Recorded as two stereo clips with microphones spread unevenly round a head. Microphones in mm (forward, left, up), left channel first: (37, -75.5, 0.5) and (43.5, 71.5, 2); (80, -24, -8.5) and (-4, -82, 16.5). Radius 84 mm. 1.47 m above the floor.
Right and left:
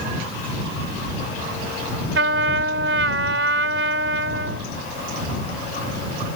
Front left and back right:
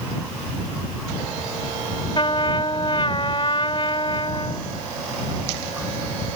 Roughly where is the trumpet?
Left.